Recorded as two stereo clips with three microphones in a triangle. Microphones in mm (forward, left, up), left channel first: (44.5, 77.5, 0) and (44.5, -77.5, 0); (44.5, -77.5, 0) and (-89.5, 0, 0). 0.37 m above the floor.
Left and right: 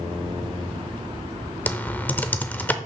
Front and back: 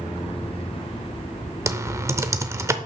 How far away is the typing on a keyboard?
About 0.6 m.